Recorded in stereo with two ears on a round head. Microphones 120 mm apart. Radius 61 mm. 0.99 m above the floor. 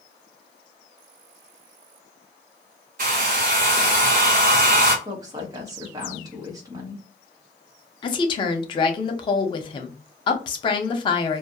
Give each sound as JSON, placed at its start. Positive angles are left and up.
{"t": 3.0, "sound": "a hair dryer", "side_deg": -65, "distance_m": 0.8}
{"t": 5.0, "sound": "a woman speaking", "side_deg": -25, "distance_m": 0.9}
{"t": 8.0, "sound": "a woman speaking", "side_deg": 35, "distance_m": 0.6}